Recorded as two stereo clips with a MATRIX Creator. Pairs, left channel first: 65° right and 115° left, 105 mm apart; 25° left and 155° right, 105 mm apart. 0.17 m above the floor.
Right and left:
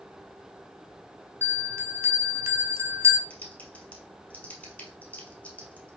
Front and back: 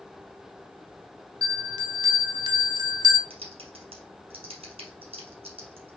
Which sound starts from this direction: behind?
A bell, at 1.4 s.